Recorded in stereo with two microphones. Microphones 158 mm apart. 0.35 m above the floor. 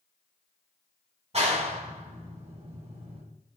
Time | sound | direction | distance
1.3 | a clap | 40° right (ahead or behind) | 2.5 m